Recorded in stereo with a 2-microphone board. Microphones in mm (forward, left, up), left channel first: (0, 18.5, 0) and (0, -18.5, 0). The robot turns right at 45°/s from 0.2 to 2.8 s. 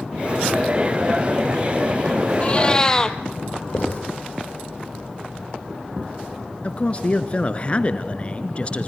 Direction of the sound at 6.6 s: 35° left (ahead or behind).